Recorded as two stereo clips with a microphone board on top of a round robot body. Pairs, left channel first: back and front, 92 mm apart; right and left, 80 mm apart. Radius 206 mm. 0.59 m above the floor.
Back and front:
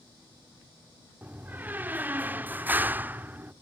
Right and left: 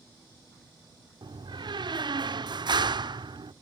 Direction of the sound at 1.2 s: 70° left.